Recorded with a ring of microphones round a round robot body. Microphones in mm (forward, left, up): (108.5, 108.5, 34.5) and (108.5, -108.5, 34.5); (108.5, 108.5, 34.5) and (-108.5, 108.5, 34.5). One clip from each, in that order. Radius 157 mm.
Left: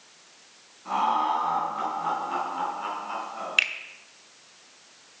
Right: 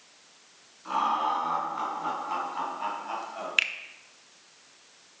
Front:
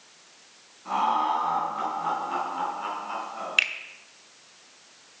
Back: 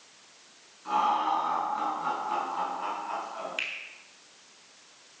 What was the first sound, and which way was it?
Laughter, 125° right.